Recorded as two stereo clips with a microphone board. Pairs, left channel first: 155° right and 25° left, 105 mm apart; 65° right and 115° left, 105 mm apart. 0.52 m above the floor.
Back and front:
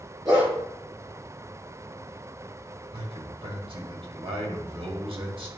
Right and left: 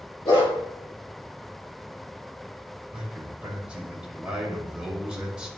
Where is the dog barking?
30° right, 4 m.